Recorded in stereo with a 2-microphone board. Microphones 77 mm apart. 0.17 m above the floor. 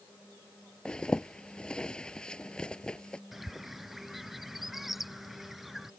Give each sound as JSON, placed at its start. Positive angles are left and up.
{"t": 0.8, "sound": "a zipper", "side_deg": 10}
{"t": 3.3, "sound": "a bird", "side_deg": -5}